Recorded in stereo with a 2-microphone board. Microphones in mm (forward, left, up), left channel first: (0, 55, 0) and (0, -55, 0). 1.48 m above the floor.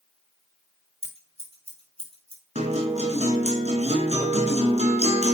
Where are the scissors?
65° right (ahead or behind), 5.5 m.